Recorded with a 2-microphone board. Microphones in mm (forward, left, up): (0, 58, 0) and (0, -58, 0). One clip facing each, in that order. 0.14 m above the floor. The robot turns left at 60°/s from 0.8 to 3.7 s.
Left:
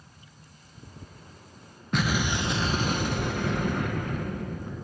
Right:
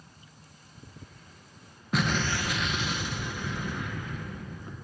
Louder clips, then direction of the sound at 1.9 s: Left 1 dB; 175° right.